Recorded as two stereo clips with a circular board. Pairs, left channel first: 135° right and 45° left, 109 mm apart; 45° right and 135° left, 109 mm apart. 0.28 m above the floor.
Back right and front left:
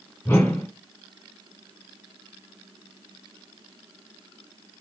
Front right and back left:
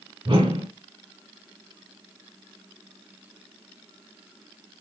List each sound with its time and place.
0.2 s a whoosh: 165° left, 1.1 m